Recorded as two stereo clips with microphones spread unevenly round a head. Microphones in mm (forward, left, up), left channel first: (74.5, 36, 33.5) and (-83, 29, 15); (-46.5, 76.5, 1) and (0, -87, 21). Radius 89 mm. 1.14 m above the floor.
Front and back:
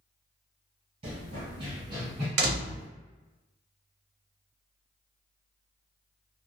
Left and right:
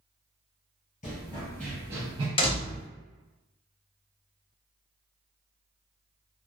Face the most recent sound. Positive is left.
turn(degrees=165)